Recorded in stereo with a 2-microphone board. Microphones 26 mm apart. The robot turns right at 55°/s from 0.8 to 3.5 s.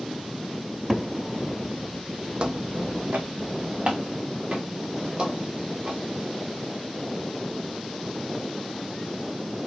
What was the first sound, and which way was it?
A cupboard door, 15° right (ahead or behind).